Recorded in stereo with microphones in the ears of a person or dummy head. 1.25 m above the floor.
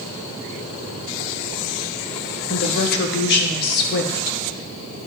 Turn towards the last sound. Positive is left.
turn(degrees=55)  # may be behind; listen again after turning